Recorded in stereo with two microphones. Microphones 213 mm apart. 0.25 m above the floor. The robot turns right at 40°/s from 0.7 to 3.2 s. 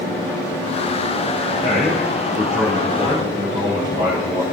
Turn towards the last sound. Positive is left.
turn(degrees=-155)